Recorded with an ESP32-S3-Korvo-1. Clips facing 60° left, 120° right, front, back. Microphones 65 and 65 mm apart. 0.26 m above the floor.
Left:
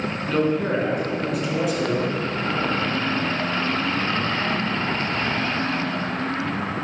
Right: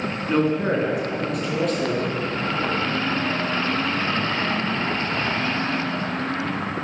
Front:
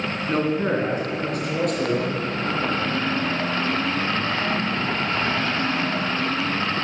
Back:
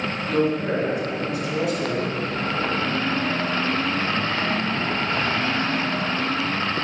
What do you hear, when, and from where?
0.3 s a man speaking: 55° right, 2.5 m; by 2.9 s 5° right, 3 m